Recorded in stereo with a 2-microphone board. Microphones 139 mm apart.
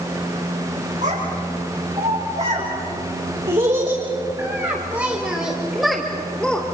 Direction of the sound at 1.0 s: 60° right (ahead or behind).